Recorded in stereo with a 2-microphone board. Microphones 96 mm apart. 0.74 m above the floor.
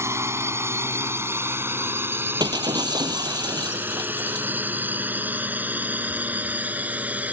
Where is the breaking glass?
45° right (ahead or behind).